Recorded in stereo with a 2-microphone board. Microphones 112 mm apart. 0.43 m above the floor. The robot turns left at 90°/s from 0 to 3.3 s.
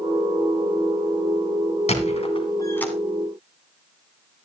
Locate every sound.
1.9 s a squeak: 75° left (ahead or behind), 2 m; by 2.9 s 5° left (ahead or behind), 2 m